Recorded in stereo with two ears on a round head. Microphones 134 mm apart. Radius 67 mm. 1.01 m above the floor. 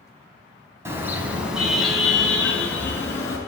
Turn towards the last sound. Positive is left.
turn(degrees=20)  # may be behind; listen again after turning